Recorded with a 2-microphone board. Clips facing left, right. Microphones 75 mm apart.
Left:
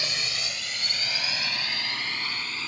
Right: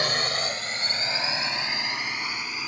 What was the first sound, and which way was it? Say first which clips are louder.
A drone: right 7 dB; 50° right (ahead or behind).